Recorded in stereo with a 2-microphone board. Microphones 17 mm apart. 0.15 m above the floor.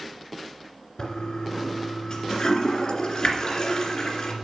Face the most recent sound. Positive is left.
turn(degrees=45)  # may be behind; listen again after turning